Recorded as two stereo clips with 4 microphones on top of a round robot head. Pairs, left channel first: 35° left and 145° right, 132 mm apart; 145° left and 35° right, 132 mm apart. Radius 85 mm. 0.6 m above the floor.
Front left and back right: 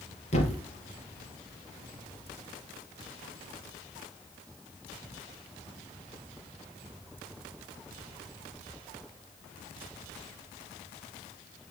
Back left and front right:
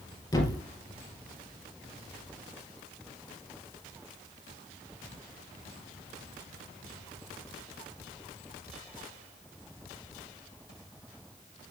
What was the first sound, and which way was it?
A thud, 80° left.